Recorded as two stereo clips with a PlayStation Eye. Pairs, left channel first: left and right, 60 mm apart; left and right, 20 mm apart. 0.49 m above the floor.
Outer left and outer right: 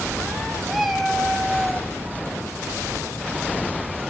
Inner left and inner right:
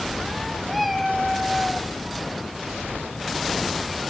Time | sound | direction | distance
0.7 | a cat meowing | centre (ahead or behind) | 2.5 m